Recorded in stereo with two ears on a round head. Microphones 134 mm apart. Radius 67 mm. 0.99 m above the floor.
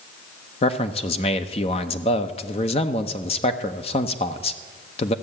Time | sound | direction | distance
0.6 | a man speaking | 40° left (ahead or behind) | 0.8 m